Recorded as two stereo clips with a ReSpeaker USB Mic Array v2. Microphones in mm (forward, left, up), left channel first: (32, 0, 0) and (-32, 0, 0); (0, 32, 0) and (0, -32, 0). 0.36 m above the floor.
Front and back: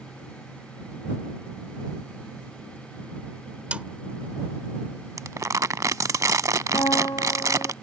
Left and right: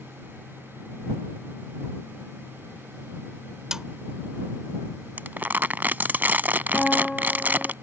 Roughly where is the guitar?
Ahead.